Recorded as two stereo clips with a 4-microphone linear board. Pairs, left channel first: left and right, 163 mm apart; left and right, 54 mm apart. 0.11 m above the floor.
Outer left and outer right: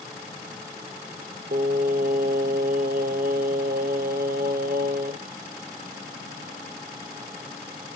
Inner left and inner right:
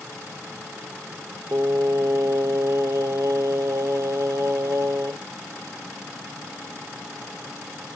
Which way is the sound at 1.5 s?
65° right (ahead or behind).